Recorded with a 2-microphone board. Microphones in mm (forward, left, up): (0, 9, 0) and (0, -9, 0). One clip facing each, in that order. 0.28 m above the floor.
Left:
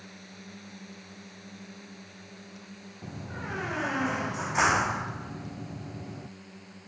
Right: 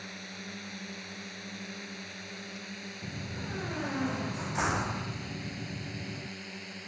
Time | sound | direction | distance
0.0 | a drone | 30° right (ahead or behind) | ?
3.0 | a door slam | 35° left (ahead or behind) | ?